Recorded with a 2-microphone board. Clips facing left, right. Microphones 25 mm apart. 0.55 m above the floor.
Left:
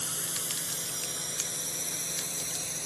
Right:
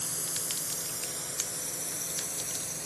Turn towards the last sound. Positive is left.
turn(degrees=55)  # may be behind; listen again after turning